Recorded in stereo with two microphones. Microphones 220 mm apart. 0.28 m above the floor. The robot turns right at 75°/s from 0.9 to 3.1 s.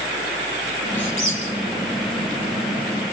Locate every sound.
1.0 s a squeak: 65° left (ahead or behind), 6.5 m; by 1.4 s 80° left, 6.5 m